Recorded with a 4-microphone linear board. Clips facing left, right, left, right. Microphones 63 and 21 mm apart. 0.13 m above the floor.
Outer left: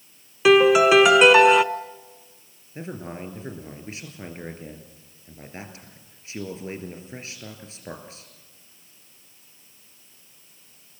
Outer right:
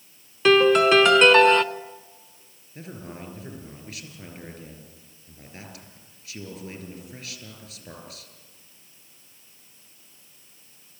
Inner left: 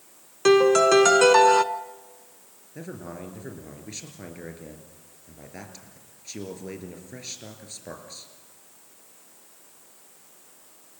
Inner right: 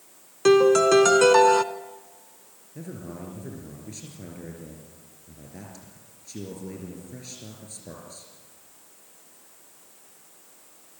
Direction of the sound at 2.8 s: 25° left (ahead or behind).